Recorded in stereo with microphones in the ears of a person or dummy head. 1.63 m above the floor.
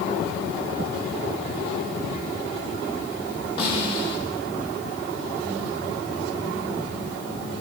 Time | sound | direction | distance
3.6 | a snare drum | 40° left (ahead or behind) | 2.5 m